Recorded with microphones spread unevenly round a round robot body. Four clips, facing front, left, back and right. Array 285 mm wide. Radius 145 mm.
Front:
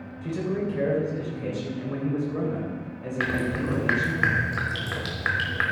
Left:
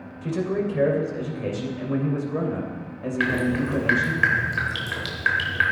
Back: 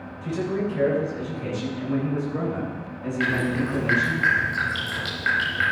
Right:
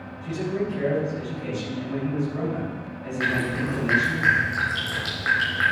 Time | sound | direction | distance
0.2 | a man speaking | 75° left | 3 m
3.2 | dripping | 15° left | 1.3 m